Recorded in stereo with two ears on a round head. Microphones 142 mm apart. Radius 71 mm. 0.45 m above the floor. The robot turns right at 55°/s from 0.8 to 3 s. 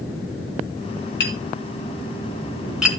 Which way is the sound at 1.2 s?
80° left.